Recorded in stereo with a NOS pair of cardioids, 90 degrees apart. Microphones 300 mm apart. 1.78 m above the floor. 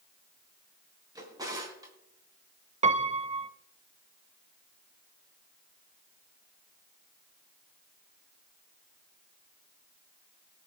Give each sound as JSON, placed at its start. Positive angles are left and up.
{"t": 1.1, "sound": "a drawer", "azimuth_deg": -15, "distance_m": 4.5}
{"t": 2.8, "sound": "a piano", "azimuth_deg": -20, "distance_m": 0.9}